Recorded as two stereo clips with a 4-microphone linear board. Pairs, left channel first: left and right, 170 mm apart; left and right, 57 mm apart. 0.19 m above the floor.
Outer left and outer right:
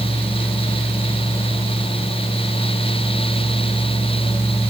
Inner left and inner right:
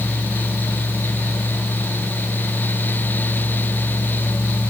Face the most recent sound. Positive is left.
No sound to turn to.